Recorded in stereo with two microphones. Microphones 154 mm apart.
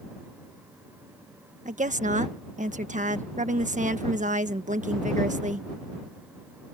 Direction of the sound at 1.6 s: 55° right (ahead or behind).